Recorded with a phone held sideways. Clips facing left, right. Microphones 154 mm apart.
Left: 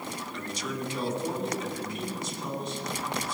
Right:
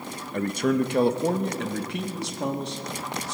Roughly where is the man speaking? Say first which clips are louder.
Right 14 dB; right.